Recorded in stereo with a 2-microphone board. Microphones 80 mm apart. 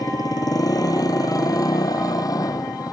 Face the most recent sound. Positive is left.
turn(degrees=50)  # may be behind; listen again after turning